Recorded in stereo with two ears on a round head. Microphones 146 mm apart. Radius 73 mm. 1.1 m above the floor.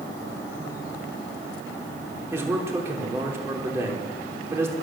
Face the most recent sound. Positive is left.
turn(degrees=-15)  # may be behind; listen again after turning